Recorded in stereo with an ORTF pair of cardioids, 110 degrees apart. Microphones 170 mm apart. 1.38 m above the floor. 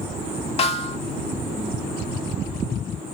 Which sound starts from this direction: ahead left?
A snare drum, at 0.6 s.